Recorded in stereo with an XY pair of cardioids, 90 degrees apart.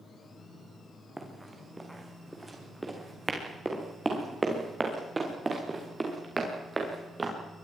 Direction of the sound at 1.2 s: 10° right.